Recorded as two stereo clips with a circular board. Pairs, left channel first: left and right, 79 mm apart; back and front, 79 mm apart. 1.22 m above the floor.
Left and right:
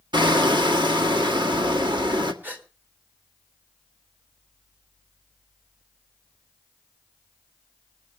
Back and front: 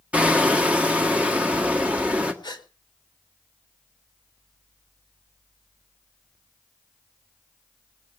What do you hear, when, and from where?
0.1 s hammering: 70° right, 1.7 m
2.4 s a gasp: 160° right, 2 m